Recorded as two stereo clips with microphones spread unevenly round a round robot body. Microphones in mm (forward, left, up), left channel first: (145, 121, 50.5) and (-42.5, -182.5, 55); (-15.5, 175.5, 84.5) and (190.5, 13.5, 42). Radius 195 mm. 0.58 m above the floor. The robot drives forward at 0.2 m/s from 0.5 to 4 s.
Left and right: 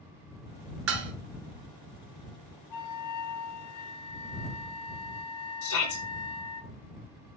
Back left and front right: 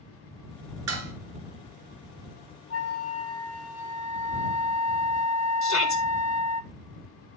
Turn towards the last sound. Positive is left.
turn(degrees=105)